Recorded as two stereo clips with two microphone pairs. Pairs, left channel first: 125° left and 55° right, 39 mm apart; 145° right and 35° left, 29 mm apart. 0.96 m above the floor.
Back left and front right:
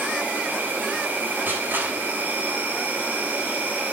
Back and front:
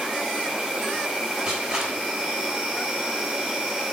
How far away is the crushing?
About 6 m.